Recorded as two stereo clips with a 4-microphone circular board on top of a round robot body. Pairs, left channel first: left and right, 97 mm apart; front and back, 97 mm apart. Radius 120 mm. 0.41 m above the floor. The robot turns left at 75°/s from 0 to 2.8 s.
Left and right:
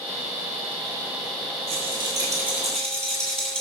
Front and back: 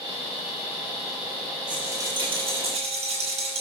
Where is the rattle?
100° right, 6 m; by 3.6 s 175° left, 6 m.